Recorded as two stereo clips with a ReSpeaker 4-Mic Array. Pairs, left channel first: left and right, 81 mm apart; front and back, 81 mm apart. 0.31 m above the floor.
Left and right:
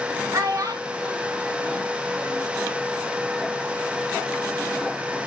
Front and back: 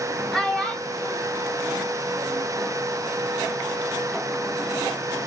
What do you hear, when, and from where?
0.3 s a child speaking: 80° right, 0.8 m; by 2.5 s 65° right, 1.8 m